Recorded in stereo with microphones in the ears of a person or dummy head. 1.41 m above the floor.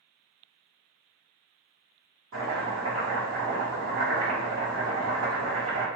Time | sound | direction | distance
2.3 | chopping | 70° right (ahead or behind) | 1.3 m